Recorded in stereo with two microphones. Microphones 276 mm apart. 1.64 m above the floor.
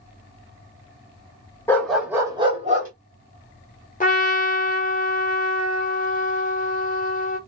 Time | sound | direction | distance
1.7 | a dog barking | 10° left (ahead or behind) | 1.4 m
4.0 | a trumpet | 30° left (ahead or behind) | 1.0 m